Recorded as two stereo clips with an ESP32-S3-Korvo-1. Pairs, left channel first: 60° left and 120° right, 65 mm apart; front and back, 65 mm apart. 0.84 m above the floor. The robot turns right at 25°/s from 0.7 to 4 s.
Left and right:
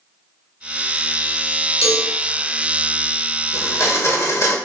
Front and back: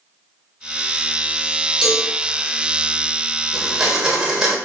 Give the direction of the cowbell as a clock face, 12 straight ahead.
3 o'clock.